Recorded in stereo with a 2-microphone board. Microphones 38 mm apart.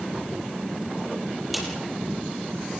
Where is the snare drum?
5° right (ahead or behind), 7.5 m.